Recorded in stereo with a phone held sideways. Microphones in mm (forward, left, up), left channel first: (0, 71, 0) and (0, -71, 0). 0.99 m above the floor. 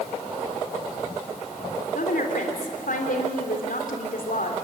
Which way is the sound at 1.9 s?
75° left (ahead or behind).